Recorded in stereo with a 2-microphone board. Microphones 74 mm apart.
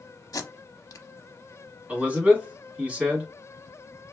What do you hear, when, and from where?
0.3 s tape being pulled: 55° left (ahead or behind), 0.6 m
1.9 s a man speaking: 20° right (ahead or behind), 1.8 m